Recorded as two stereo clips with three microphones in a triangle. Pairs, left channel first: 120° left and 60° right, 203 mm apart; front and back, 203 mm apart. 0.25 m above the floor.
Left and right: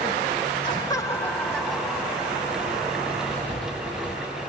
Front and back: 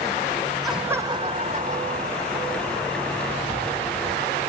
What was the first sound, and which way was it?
Laughter, 85° left.